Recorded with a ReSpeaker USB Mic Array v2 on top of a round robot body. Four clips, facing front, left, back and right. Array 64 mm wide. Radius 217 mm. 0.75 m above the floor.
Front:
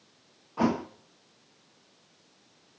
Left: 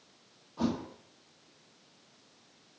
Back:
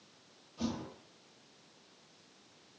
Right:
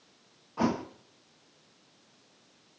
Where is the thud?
35° right, 0.8 m.